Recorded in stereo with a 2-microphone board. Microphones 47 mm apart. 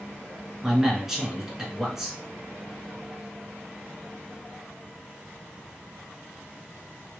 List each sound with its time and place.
0.6 s a man speaking: 10° right (ahead or behind), 1.6 m